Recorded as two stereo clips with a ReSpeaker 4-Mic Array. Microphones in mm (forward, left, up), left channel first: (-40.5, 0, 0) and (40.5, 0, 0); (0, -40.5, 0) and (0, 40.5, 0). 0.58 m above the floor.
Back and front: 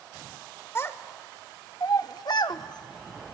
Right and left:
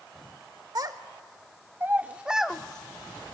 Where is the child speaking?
125° left, 1.2 m; by 3.4 s 145° right, 0.9 m.